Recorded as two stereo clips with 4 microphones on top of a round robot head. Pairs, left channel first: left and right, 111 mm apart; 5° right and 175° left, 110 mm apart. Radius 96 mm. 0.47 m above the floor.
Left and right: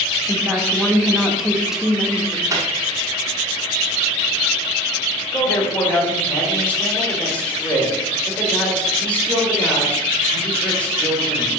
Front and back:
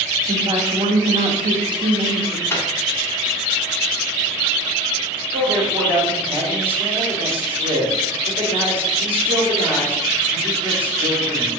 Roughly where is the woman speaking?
Behind.